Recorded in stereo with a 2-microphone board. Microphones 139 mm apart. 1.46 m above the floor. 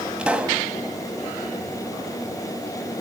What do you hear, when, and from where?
0.2 s a pop: 5° right (ahead or behind), 1.4 m